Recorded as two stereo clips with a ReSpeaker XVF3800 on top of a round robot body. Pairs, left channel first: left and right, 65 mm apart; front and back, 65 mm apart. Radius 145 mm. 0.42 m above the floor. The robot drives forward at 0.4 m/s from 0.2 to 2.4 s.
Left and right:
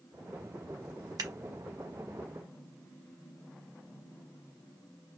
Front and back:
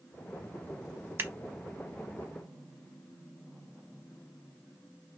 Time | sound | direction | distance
1.2 | scissors | 125° right | 0.7 m